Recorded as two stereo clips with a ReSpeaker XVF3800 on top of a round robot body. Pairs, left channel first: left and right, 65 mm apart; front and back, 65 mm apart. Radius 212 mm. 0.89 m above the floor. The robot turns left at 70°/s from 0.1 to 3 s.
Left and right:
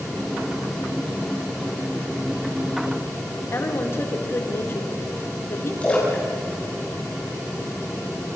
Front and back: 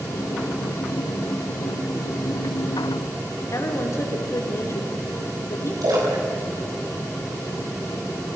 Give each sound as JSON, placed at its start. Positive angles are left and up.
{"t": 3.5, "sound": "a woman speaking", "azimuth_deg": 40, "distance_m": 4.0}
{"t": 5.8, "sound": "a splash", "azimuth_deg": 160, "distance_m": 6.5}